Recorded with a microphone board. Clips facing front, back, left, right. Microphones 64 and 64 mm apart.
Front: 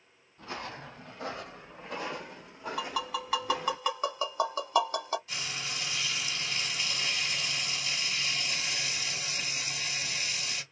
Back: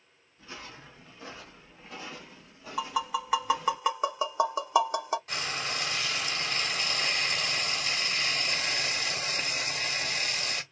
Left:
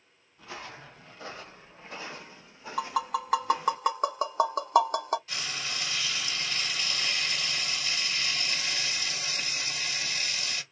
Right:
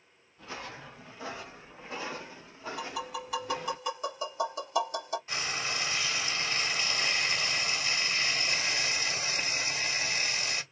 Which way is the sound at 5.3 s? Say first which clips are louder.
Back 4 dB, right 2 dB; 150° right.